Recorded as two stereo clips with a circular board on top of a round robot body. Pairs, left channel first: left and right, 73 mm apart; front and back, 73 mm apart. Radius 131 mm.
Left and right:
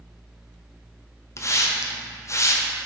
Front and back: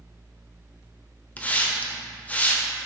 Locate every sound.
1.4 s a hiss: 65° left, 1.3 m